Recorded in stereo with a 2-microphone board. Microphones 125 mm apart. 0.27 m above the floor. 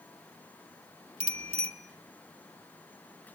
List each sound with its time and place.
1.2 s a bicycle bell: 55° right (ahead or behind), 2.5 m